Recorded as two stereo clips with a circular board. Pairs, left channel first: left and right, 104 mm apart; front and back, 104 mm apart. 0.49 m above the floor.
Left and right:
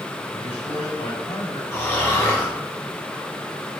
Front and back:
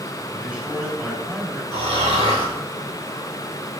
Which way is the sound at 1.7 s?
155° left.